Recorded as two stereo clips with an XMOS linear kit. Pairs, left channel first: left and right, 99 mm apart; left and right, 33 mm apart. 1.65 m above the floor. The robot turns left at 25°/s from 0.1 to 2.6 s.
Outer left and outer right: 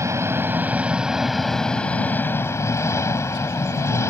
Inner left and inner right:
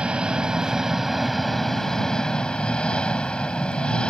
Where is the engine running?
150° right; by 4.1 s 150° left.